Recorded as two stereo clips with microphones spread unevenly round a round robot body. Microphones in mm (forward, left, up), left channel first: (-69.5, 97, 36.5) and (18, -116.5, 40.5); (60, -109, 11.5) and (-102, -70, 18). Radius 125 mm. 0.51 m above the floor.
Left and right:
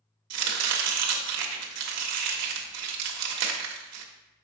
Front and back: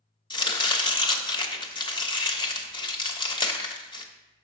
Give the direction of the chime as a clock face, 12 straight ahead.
No chime in this recording.